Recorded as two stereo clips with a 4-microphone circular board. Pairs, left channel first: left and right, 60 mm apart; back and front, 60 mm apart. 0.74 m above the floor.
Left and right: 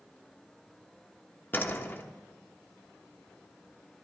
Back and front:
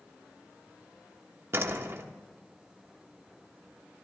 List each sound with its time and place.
1.5 s a door slam: 40° left, 1.2 m